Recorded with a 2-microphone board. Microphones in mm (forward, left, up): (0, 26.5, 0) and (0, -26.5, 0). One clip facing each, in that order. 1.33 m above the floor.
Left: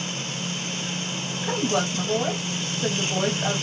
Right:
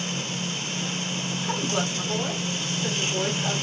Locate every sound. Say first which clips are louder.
1.4 s a woman speaking: left 4 dB; 85° left, 1.7 m